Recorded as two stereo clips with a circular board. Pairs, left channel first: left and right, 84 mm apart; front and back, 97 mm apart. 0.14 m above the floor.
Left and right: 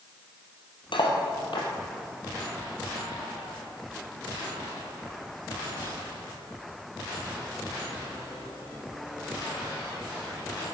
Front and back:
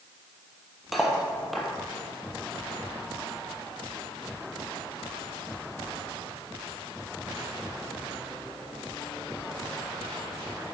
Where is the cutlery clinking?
90° left, 2.5 m.